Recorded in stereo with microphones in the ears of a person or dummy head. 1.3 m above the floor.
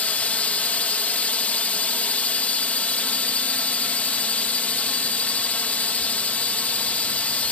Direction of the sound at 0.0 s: 5° left (ahead or behind).